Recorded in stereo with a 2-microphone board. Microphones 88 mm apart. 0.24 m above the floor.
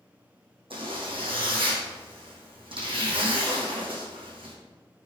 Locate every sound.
0.7 s a zipper: 80° right, 3.5 m